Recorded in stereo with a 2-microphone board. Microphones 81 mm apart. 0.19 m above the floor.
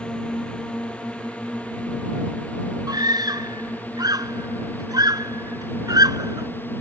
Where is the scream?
60° right (ahead or behind).